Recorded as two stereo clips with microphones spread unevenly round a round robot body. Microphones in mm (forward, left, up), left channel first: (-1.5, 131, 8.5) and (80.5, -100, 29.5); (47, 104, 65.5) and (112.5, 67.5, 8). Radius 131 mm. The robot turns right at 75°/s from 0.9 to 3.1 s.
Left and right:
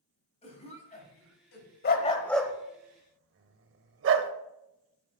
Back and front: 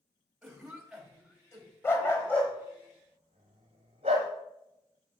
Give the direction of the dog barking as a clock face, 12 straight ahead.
7 o'clock.